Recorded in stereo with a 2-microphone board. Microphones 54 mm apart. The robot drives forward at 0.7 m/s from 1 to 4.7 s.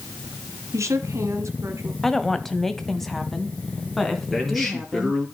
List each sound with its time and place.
0.7 s a woman speaking: 65° right (ahead or behind), 2.5 m; by 1.9 s 60° right (ahead or behind), 2.5 m
2.0 s a woman speaking: 5° left (ahead or behind), 1.0 m
4.3 s a man speaking: 5° left (ahead or behind), 4 m